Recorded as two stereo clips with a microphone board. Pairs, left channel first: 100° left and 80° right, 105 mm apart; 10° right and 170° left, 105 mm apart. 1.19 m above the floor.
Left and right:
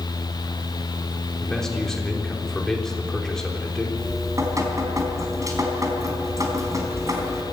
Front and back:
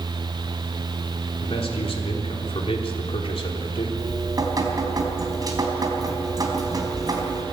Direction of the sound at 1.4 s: 15° left.